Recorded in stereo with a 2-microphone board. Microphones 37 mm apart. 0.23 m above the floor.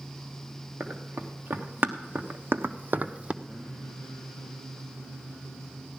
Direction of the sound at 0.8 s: 65° right (ahead or behind).